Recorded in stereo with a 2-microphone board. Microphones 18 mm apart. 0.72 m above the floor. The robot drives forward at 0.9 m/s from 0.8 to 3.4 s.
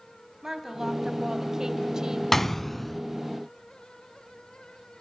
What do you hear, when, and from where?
0.4 s a woman speaking: 30° right (ahead or behind), 3.5 m; by 2.2 s 40° right (ahead or behind), 2.5 m
2.3 s a gunshot: 20° left (ahead or behind), 0.8 m; by 3.0 s 10° left (ahead or behind), 1.4 m